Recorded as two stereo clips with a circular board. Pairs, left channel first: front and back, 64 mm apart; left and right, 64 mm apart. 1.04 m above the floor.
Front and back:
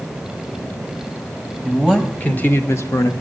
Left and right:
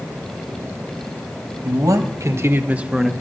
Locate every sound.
1.6 s a man speaking: 90° right, 1.4 m; by 3.1 s 5° left, 1.0 m